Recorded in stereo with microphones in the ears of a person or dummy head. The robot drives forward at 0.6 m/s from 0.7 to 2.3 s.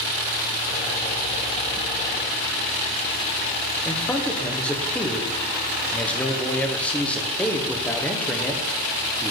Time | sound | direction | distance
3.9 | a man speaking | 5° left (ahead or behind) | 1.2 m